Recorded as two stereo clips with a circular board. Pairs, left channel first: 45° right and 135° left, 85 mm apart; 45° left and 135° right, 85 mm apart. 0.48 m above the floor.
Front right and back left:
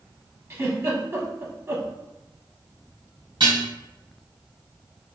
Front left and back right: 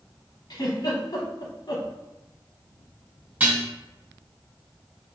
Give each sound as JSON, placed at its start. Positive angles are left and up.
{"t": 0.5, "sound": "a giggle", "azimuth_deg": 80, "distance_m": 0.9}
{"t": 3.4, "sound": "dishes clattering", "azimuth_deg": 150, "distance_m": 1.9}